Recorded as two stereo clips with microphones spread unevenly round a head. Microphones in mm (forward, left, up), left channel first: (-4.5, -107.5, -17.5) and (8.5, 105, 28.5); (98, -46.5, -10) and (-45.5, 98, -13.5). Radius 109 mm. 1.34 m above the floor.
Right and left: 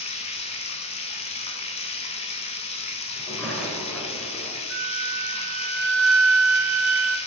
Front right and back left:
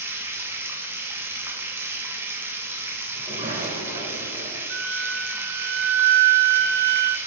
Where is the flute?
115° left, 0.6 m.